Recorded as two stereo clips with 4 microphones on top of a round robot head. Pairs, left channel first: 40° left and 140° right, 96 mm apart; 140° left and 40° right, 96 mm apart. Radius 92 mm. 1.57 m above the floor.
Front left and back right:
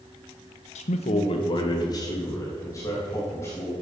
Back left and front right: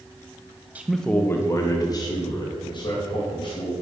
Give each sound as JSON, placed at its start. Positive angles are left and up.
{"t": 0.8, "sound": "a man speaking", "azimuth_deg": 35, "distance_m": 0.6}